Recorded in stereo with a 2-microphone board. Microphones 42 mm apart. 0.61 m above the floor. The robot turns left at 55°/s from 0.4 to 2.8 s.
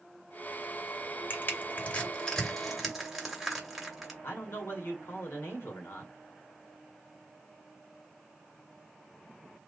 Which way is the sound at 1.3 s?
60° left (ahead or behind).